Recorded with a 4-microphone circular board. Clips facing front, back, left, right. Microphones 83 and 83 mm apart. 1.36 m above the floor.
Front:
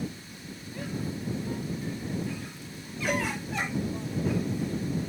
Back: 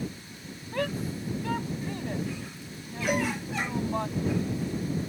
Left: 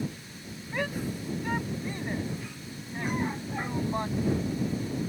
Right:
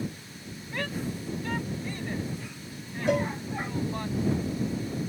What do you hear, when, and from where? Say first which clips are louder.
0.7 s a shout: back 4 dB, left 1 dB; 170° left; by 4.1 s 160° left
3.1 s a cowbell: back 2 dB, right 5 dB; 100° right